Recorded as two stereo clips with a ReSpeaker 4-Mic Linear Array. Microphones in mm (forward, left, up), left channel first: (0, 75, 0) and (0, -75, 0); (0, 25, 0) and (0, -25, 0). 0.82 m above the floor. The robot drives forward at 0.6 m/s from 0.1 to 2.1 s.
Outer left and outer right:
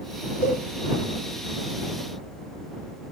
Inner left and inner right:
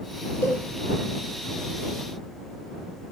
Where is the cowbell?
55° left (ahead or behind), 3 m; by 0.6 s 50° left (ahead or behind), 3 m.